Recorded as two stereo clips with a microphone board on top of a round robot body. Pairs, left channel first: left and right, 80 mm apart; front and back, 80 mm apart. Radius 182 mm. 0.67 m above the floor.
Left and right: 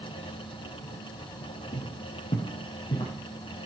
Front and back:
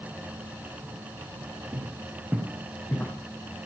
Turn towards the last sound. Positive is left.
turn(degrees=65)